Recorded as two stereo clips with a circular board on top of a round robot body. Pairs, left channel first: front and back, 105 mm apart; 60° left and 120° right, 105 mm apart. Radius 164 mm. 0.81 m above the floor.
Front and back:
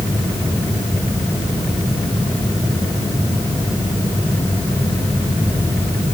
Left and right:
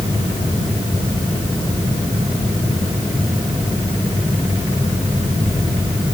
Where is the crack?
No crack in this recording.